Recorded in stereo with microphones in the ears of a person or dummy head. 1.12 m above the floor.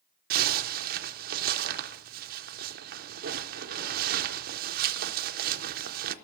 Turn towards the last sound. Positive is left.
turn(degrees=-45)  # may be behind; listen again after turning